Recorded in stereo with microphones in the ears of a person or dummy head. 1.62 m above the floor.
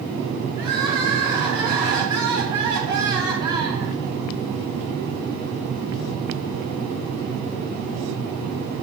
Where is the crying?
25° right (ahead or behind), 3 m.